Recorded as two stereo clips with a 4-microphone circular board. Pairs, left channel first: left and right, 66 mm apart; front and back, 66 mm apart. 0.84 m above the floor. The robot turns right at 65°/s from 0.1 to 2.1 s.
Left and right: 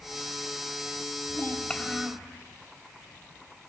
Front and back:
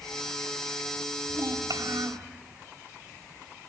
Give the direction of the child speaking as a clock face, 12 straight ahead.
7 o'clock.